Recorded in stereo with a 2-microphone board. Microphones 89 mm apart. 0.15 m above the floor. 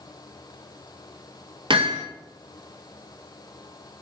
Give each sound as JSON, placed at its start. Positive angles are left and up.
{"t": 1.7, "sound": "hammering", "side_deg": -65, "distance_m": 1.9}